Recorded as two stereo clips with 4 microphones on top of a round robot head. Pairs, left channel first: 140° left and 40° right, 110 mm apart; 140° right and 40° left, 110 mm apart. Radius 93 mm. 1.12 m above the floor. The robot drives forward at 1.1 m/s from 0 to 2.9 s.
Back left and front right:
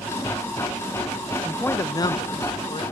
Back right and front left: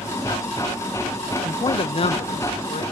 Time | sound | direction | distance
1.4 | a man speaking | 110° right | 0.5 m